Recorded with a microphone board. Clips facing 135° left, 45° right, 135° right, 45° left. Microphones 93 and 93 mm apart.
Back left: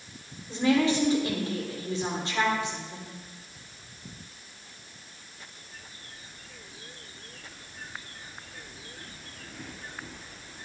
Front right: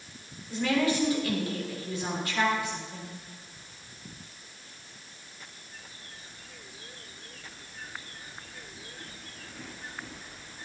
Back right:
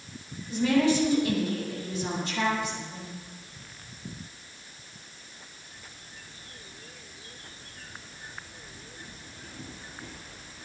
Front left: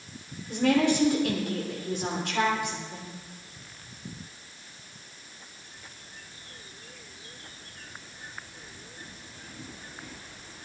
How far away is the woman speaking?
About 3.5 m.